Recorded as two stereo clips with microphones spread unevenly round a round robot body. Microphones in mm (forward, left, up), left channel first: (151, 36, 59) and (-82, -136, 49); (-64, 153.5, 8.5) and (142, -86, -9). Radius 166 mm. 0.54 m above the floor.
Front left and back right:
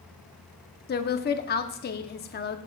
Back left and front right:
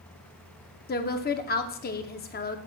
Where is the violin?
I don't hear a violin.